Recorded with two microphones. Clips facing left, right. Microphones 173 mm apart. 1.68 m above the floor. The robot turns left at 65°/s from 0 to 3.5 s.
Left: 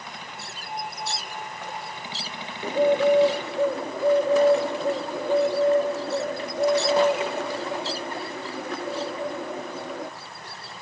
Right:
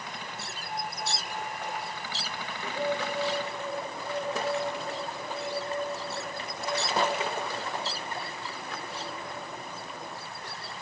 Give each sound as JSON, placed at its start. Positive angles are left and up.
{"t": 2.6, "sound": "a bird", "azimuth_deg": 145, "distance_m": 0.6}